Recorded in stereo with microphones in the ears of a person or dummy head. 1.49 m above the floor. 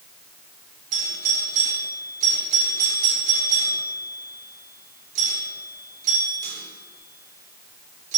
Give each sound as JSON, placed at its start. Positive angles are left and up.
{"t": 0.9, "sound": "a doorbell", "side_deg": -45, "distance_m": 6.0}